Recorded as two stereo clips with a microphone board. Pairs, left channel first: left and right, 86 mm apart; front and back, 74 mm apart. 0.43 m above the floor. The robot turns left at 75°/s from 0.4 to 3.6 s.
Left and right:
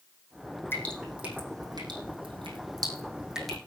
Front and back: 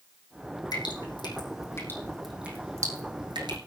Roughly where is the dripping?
Ahead left.